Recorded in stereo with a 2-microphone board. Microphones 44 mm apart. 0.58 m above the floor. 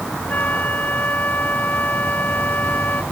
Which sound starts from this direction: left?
A flute, at 0.3 s.